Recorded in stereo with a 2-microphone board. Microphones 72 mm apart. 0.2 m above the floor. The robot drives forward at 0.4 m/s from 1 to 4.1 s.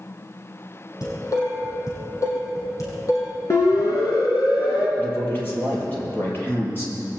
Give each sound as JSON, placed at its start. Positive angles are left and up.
{"t": 1.0, "sound": "dishes clattering", "side_deg": 50, "distance_m": 4.5}
{"t": 3.5, "sound": "a siren", "side_deg": 45, "distance_m": 4.0}
{"t": 5.0, "sound": "a man speaking", "side_deg": 30, "distance_m": 5.5}